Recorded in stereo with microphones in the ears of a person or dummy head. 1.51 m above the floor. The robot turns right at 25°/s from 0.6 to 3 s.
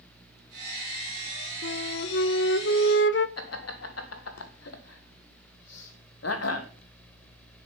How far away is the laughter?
About 1.7 m.